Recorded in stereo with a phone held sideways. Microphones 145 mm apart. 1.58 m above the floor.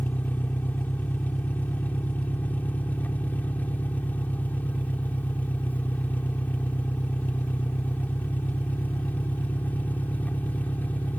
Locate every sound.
0.0 s an engine running: 10° left (ahead or behind)